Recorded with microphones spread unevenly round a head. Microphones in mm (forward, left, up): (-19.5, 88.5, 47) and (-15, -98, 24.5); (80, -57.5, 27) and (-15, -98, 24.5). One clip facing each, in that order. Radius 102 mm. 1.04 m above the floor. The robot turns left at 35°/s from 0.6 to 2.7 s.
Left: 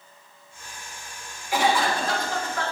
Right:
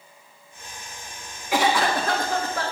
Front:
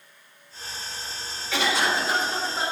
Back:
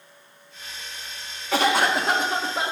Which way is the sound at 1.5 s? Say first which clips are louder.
Right 1 dB, back 4 dB; 105° right.